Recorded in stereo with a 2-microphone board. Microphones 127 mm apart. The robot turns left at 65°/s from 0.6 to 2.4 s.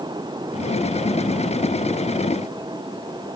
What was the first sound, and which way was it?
Only background noise.